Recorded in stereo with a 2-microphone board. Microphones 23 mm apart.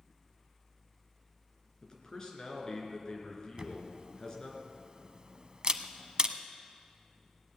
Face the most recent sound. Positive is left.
turn(degrees=-40)  # may be behind; listen again after turning